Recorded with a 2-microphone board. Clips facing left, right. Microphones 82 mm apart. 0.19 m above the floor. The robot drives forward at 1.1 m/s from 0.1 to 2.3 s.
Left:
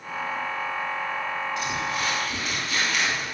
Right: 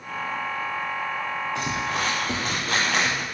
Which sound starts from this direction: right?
Crumpling, at 1.6 s.